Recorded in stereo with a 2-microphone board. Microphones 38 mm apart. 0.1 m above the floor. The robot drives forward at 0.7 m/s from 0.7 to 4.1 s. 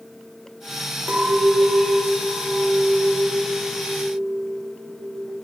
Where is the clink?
45° right (ahead or behind), 3.5 m; by 5.4 s 30° right (ahead or behind), 5.5 m.